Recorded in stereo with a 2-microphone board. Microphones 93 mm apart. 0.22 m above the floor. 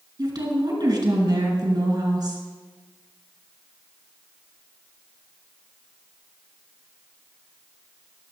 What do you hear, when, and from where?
0.2 s a woman speaking: 45° right (ahead or behind), 3 m